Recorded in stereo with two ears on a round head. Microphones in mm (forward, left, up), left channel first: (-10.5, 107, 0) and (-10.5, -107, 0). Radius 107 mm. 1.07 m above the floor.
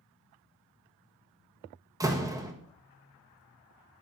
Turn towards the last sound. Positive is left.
turn(degrees=-15)  # may be behind; listen again after turning